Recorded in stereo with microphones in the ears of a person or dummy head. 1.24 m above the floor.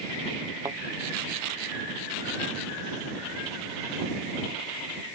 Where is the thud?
15° right (ahead or behind).